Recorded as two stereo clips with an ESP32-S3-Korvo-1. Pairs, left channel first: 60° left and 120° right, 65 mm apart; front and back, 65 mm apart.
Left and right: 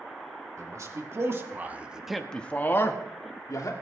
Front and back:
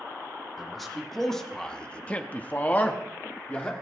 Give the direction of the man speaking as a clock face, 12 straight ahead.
3 o'clock.